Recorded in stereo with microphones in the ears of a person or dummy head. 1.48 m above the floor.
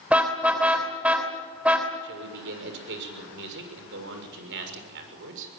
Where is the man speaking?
65° right (ahead or behind), 6.5 m.